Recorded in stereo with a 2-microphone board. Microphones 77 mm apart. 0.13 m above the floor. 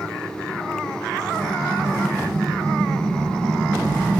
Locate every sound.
1.3 s an explosion: 40° right (ahead or behind), 5 m